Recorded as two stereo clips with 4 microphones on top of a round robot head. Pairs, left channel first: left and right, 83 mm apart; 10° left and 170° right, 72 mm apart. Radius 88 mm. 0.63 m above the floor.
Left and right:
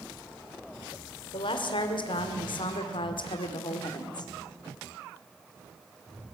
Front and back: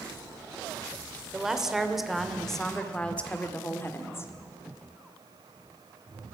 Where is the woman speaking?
110° left, 2.5 m; by 4.3 s 60° left, 1.7 m.